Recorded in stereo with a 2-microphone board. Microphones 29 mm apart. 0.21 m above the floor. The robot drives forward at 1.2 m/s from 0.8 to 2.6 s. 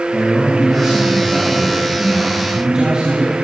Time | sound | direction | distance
0.1 | a man speaking | 20° right (ahead or behind) | 4.5 m